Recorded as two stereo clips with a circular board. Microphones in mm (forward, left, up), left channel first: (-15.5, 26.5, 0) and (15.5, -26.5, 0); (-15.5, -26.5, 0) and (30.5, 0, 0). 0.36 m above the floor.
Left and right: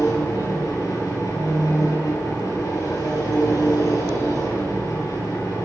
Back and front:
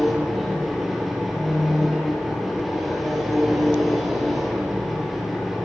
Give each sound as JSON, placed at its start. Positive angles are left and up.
{"t": 0.0, "sound": "an engine running", "azimuth_deg": 115, "distance_m": 9.0}